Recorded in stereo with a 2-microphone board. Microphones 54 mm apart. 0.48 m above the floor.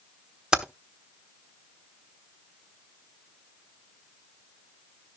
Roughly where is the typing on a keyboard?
Centre.